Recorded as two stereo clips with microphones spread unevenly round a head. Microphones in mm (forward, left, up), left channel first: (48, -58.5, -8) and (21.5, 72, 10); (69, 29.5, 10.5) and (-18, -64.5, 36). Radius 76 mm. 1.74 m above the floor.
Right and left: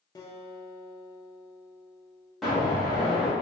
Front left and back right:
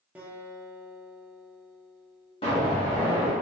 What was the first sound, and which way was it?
A guitar, 110° right.